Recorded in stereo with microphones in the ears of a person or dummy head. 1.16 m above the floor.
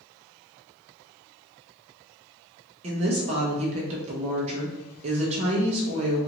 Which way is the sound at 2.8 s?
40° right (ahead or behind).